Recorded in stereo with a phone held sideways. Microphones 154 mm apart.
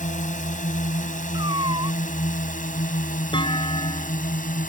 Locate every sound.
0.0 s a drone: 55° left (ahead or behind); by 4.7 s 60° left (ahead or behind)
1.3 s a cat meowing: 30° right (ahead or behind)
3.3 s a clunk: 30° left (ahead or behind)